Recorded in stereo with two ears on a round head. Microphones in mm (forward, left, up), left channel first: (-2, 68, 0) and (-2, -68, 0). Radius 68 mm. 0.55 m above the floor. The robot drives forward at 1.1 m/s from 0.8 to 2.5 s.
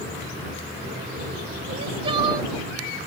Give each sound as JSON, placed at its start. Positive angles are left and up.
{"t": 1.7, "sound": "crying", "side_deg": -45}